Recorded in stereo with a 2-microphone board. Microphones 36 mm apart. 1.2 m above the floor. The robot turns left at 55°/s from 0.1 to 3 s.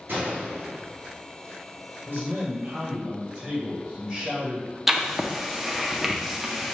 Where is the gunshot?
65° right (ahead or behind), 1.5 m; by 1.2 s 55° right (ahead or behind), 1.5 m.